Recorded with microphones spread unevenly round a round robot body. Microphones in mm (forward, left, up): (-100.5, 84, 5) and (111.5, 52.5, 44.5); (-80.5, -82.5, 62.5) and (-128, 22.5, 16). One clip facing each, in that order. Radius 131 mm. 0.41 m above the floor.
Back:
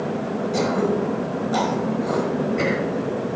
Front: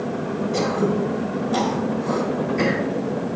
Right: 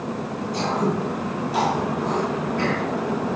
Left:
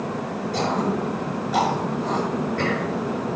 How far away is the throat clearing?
About 5 m.